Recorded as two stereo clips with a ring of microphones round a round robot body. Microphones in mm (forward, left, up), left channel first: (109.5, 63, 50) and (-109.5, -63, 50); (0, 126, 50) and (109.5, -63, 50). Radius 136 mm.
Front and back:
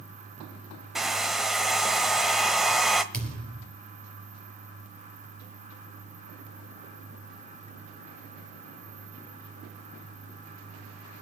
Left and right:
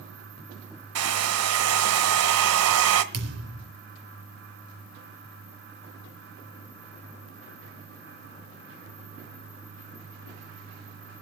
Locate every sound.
0.9 s a hair dryer: 60° right, 1.2 m
3.1 s a thud: 55° right, 3.5 m